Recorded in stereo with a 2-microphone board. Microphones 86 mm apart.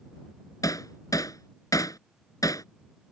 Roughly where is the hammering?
Left.